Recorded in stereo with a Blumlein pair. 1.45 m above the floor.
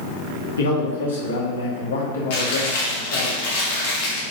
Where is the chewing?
55° left, 2 m.